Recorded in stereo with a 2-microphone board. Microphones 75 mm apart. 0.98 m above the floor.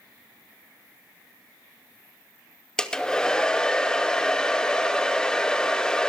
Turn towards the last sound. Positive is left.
turn(degrees=10)  # may be behind; listen again after turning